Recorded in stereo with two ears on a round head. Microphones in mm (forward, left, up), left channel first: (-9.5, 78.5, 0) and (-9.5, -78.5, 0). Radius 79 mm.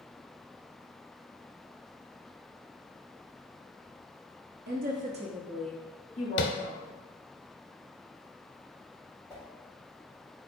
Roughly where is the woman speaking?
Right.